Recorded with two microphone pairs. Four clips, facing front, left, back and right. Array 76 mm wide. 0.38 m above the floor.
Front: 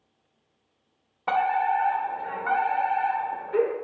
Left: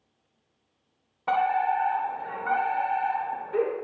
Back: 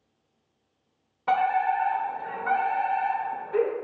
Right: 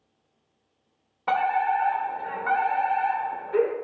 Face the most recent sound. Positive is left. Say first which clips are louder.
# right 1 dB, even
turn(degrees=-55)